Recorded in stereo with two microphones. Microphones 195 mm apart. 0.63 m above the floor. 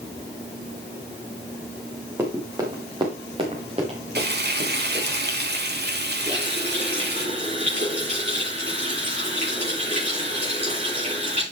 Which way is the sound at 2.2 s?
15° right (ahead or behind).